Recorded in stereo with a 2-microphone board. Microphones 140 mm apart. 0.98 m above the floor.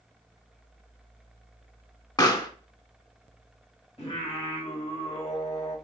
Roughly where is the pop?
Left.